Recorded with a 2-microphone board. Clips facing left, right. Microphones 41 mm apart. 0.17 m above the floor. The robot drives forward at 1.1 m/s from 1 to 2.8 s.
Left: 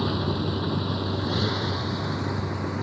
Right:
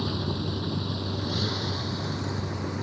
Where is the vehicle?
25° left (ahead or behind); by 2.8 s 15° left (ahead or behind).